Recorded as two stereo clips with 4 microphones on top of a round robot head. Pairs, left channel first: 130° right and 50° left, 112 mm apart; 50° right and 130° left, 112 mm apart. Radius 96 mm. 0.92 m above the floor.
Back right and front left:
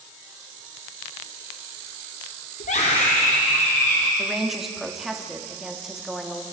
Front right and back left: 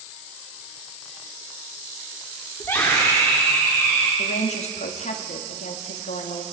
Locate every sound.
2.6 s a scream: 120° right, 2 m; by 4.1 s 115° right, 4 m
4.2 s a woman speaking: 40° right, 2 m